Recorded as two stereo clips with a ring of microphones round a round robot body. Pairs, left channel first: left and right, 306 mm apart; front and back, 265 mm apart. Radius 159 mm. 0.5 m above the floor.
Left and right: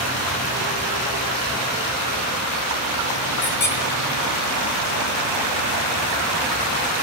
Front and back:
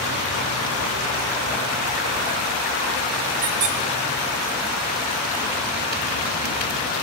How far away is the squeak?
About 4 m.